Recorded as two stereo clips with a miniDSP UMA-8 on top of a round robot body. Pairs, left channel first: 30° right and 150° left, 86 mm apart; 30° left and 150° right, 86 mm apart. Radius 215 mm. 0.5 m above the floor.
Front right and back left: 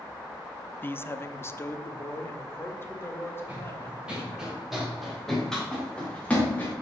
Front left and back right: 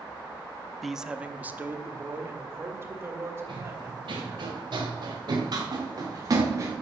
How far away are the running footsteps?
About 5.5 m.